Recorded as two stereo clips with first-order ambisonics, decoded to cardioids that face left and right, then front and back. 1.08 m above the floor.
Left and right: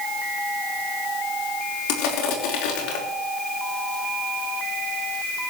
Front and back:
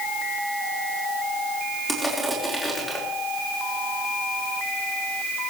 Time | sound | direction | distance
1.9 | crushing | 90° left | 3.5 m